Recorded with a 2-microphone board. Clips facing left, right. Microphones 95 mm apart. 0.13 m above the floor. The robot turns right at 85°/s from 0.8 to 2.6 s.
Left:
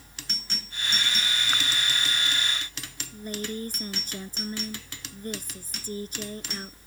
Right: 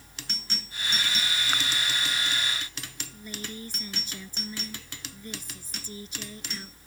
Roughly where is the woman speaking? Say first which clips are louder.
Left 8 dB; left.